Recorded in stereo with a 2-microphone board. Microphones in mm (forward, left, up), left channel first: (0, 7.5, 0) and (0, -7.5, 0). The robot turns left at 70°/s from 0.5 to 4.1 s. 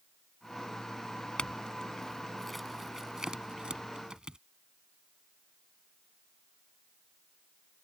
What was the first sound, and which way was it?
A clink, 80° left.